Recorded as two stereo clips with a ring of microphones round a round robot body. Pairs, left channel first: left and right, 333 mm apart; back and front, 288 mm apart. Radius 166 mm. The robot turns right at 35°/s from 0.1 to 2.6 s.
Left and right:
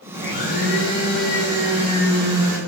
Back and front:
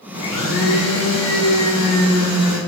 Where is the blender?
140° left, 1.2 m; by 2.6 s 135° right, 1.2 m.